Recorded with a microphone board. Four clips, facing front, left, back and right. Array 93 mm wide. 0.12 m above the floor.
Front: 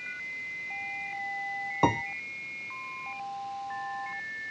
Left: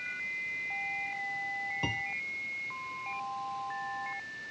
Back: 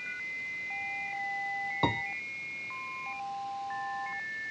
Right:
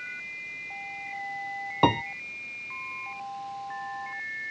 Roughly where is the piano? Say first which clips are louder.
Right 17 dB, front 5 dB; right.